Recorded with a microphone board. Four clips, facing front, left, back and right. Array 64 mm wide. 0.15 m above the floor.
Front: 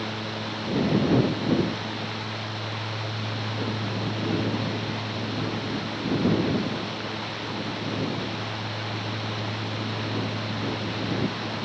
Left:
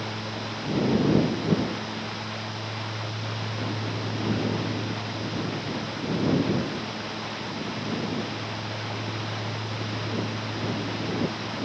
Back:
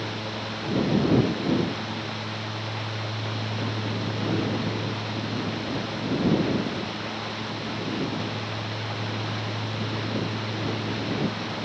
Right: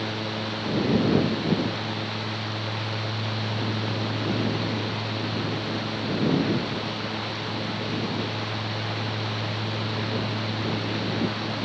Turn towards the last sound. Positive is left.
No sound to turn to.